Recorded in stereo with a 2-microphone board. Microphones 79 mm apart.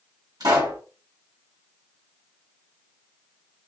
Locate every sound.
0.4 s a pop: 60° right (ahead or behind), 1.7 m